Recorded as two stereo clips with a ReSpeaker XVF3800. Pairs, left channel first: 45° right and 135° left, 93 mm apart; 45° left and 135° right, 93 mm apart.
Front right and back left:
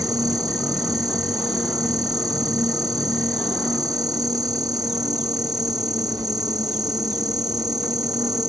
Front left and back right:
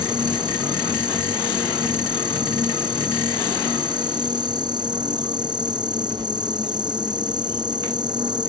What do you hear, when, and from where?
0.0 s an insect: 175° right